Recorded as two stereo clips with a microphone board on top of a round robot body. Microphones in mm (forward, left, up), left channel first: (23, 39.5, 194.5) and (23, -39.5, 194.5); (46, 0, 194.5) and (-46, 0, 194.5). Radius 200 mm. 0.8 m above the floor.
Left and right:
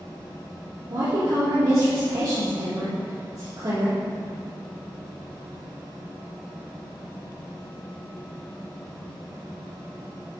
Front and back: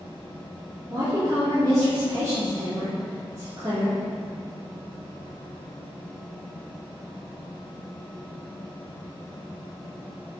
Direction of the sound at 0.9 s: 130° right.